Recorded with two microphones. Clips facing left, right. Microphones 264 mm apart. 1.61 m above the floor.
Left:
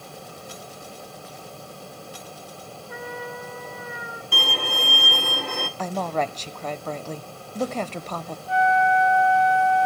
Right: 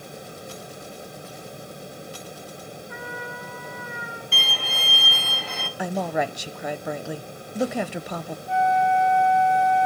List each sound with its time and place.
2.9 s a trumpet: 45° left (ahead or behind), 4.5 m
4.3 s a violin: 55° left (ahead or behind), 0.8 m
5.8 s a woman speaking: 10° right (ahead or behind), 0.5 m
8.5 s a flute: 20° right (ahead or behind), 5 m